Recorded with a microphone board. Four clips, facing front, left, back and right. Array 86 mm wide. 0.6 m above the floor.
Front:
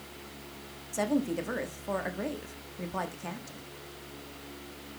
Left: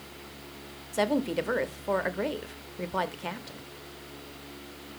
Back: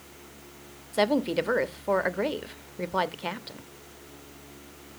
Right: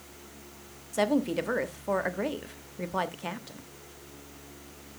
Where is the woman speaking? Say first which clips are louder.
Right 1 dB, back 5 dB; straight behind, 0.8 m.